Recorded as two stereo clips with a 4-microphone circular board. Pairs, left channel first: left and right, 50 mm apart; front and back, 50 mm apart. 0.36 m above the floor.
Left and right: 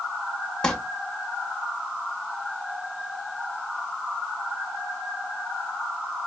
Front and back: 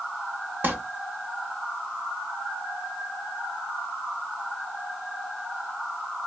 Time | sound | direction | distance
0.6 | crumpling | 160° left | 0.6 m